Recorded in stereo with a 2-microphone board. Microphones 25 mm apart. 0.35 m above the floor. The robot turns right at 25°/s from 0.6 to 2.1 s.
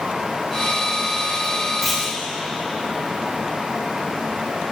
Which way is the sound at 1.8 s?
Centre (ahead or behind).